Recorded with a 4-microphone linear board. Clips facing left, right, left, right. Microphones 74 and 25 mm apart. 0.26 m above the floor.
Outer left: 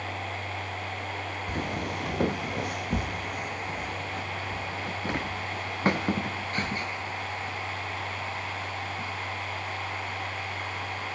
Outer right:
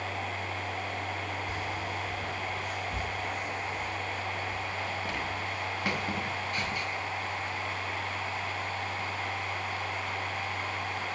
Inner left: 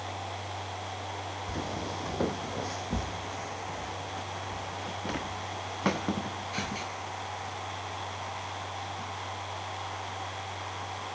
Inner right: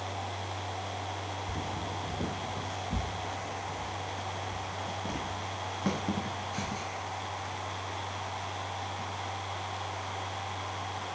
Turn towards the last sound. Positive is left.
turn(degrees=30)  # may be behind; listen again after turning